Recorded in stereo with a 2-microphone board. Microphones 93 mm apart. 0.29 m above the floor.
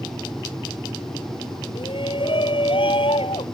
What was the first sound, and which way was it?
A shout, 65° left (ahead or behind).